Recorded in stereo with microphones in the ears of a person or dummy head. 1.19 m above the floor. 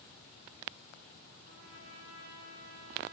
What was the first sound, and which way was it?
A trumpet, 55° right (ahead or behind).